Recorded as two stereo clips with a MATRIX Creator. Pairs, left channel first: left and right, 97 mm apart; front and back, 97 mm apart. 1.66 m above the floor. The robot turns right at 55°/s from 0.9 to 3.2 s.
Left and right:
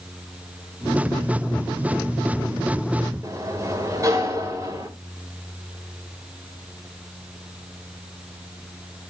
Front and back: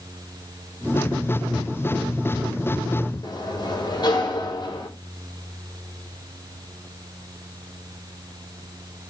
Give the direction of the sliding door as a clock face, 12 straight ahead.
1 o'clock.